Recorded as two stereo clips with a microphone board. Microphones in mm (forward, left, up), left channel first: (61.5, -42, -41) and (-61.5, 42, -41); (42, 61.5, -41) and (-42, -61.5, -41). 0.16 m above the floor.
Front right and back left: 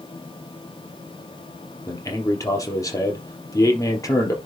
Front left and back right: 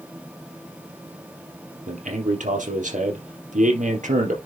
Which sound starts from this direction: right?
A man speaking, at 1.9 s.